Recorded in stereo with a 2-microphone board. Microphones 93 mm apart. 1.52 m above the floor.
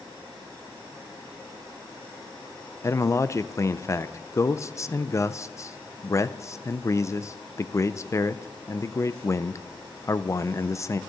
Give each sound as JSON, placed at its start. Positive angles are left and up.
{"t": 2.8, "sound": "a man speaking", "side_deg": 30, "distance_m": 0.6}